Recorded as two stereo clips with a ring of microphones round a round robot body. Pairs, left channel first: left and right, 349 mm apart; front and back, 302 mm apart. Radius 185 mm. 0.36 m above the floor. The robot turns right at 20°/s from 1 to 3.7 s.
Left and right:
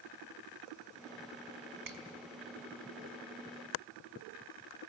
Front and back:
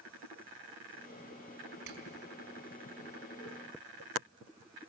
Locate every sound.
1.9 s a finger snap: 120° right, 4 m